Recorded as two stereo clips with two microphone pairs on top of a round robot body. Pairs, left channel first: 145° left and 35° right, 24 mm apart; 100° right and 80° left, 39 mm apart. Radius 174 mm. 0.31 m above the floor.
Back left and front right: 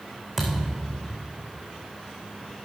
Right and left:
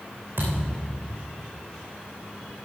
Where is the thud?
40° left, 2.5 m.